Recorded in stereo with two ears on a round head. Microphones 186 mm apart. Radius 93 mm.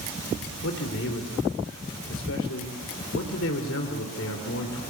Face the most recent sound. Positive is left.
turn(degrees=70)  # may be behind; listen again after turning